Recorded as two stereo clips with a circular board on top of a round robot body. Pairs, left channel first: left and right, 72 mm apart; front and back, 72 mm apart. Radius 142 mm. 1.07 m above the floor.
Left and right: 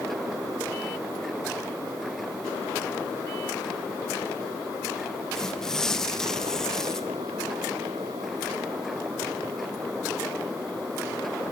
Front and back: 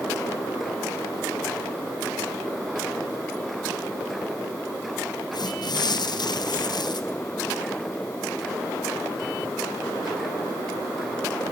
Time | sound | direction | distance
5.3 | tearing paper | 10° left | 1.7 m